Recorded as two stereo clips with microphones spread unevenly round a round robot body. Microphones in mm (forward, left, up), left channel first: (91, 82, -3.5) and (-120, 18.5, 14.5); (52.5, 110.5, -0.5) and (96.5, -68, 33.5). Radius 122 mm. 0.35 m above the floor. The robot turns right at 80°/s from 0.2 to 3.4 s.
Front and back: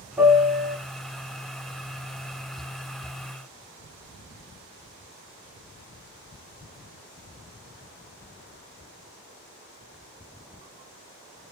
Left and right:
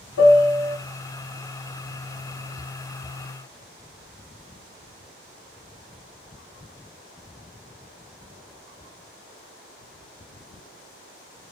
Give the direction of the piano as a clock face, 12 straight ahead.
8 o'clock.